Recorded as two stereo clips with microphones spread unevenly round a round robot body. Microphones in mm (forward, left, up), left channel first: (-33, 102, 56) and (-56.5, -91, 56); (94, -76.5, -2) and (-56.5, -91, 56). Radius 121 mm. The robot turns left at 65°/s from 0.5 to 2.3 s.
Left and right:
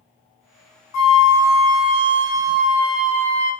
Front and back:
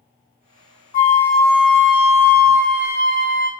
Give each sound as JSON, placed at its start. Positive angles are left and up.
{"t": 0.9, "sound": "a flute", "azimuth_deg": 85, "distance_m": 1.7}